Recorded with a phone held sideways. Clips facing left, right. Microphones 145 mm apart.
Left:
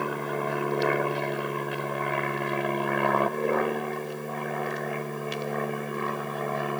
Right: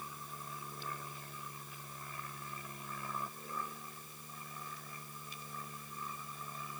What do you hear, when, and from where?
0.0 s an aircraft: 70° left (ahead or behind)